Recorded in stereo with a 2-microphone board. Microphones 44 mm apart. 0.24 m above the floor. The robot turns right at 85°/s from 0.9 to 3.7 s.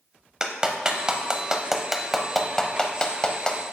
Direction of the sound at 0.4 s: 20° right (ahead or behind).